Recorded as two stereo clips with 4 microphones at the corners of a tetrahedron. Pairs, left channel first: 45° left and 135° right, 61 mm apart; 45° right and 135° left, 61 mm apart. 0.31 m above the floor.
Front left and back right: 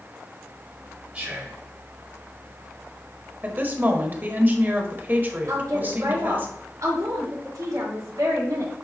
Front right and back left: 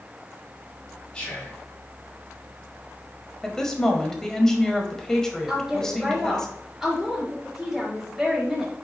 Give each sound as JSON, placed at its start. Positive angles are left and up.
{"t": 1.1, "sound": "whispering", "azimuth_deg": -100, "distance_m": 1.8}
{"t": 3.4, "sound": "a woman speaking", "azimuth_deg": -120, "distance_m": 1.2}
{"t": 5.5, "sound": "a woman speaking", "azimuth_deg": -145, "distance_m": 3.5}